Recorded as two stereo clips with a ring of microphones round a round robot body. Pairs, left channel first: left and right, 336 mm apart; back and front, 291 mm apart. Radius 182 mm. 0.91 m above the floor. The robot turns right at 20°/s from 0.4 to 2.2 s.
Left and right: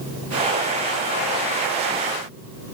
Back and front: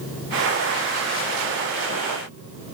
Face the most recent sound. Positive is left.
No sound to turn to.